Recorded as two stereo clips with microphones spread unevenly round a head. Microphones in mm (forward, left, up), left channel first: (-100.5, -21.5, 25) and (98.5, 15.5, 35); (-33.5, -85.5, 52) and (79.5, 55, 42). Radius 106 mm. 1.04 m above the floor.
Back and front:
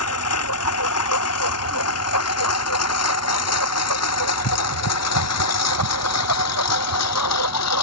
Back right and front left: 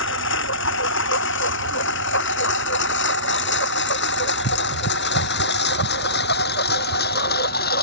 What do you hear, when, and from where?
0.0 s a lawn mower: 155° right; by 7.8 s 175° right